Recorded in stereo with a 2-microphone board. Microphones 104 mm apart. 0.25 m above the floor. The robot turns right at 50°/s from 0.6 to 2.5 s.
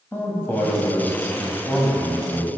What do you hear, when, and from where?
0.1 s a man speaking: 140° left, 1.0 m; by 2.5 s 125° right, 1.0 m